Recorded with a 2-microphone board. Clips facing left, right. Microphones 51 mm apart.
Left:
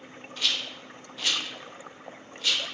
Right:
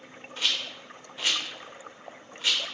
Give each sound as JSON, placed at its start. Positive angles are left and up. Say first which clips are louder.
{"t": 0.4, "sound": "a rattle", "louder": "even", "side_deg": -25, "distance_m": 0.5}